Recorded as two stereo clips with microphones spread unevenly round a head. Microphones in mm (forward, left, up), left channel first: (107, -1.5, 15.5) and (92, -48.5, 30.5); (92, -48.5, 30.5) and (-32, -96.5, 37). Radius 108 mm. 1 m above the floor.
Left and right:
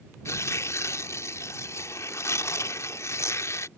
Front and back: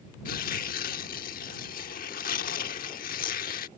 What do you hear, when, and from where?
0.2 s tearing paper: 40° left